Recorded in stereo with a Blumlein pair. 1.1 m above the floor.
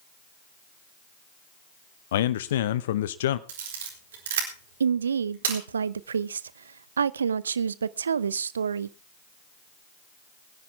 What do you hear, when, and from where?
2.1 s a man speaking: 60° left, 0.7 m
3.5 s a camera shutter: 60° right, 4 m
4.8 s a woman speaking: 70° right, 0.6 m